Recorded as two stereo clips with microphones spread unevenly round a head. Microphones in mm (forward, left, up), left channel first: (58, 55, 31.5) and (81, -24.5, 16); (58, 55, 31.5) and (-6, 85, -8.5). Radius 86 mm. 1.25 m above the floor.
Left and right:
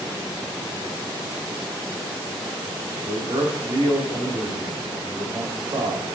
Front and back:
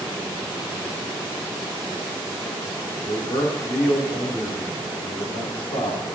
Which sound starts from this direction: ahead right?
A man speaking, at 3.1 s.